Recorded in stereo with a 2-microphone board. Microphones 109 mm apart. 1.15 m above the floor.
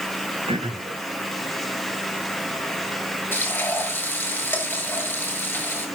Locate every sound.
0.5 s throat clearing: 65° right (ahead or behind), 5 m
3.3 s frying: 20° left (ahead or behind), 7 m